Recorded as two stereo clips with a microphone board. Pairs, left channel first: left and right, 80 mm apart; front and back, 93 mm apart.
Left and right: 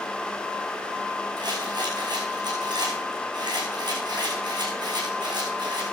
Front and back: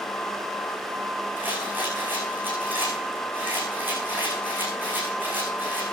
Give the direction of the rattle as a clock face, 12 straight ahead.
4 o'clock.